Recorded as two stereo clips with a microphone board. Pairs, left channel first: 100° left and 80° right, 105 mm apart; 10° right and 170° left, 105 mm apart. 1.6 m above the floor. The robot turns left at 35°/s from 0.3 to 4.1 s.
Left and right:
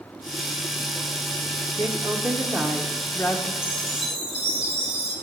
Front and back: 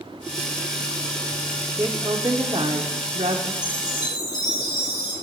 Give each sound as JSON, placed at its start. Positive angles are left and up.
{"t": 1.8, "sound": "a woman speaking", "azimuth_deg": -125, "distance_m": 1.0}
{"t": 3.6, "sound": "a chime", "azimuth_deg": -35, "distance_m": 6.5}